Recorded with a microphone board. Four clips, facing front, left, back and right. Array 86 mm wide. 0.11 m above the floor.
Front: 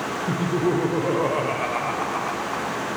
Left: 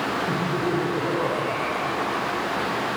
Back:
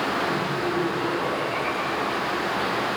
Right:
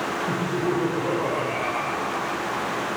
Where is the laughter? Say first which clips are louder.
Even, front 3 dB; 5° right, 4.5 m; by 2.9 s 5° left, 6 m.